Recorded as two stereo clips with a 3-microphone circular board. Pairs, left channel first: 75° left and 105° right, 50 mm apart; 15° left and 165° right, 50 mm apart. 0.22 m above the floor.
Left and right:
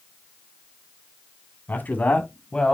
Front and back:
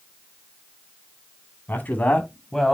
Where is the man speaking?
45° left, 2 m; by 2.7 s 100° left, 1.5 m.